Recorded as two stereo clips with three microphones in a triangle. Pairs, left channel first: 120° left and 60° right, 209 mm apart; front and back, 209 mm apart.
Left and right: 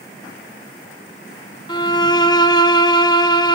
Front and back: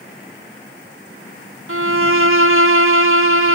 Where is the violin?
175° right, 0.5 m.